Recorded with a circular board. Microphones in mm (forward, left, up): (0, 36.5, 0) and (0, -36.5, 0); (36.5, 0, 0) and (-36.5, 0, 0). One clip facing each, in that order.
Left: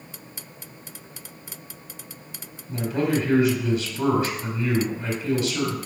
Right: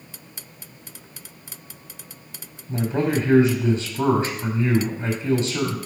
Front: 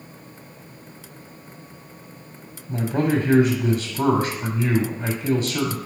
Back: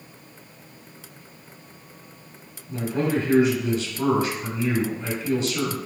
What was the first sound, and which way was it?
A man speaking, 40° right.